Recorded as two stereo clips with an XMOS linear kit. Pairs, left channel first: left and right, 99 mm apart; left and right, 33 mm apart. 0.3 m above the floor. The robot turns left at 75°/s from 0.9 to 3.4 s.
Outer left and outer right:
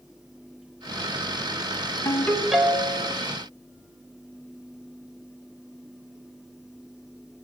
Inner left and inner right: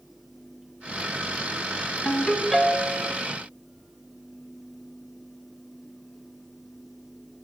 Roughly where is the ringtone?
Ahead left.